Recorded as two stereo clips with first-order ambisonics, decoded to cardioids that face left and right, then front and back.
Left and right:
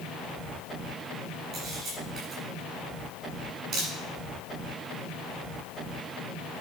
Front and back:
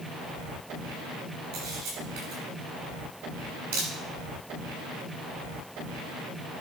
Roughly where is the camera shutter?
Behind right.